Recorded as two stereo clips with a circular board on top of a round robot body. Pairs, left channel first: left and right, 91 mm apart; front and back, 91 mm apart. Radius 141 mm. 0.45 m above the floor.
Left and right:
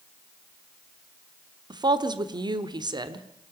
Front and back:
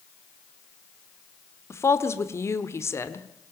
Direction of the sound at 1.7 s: 60° right.